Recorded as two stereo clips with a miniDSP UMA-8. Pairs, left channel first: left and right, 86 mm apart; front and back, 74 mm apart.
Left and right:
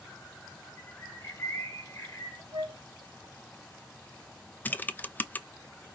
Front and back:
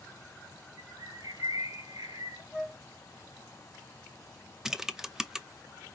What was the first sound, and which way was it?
A bird, 150° left.